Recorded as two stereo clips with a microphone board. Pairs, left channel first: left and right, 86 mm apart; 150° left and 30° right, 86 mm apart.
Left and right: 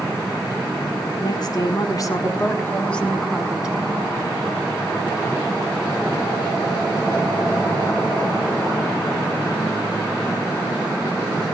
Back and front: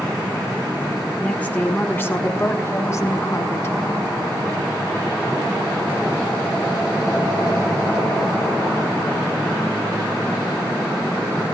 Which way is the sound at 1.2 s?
80° left.